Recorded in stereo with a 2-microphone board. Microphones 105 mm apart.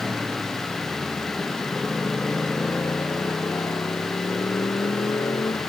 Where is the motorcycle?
5° right (ahead or behind); by 5.7 s 35° left (ahead or behind).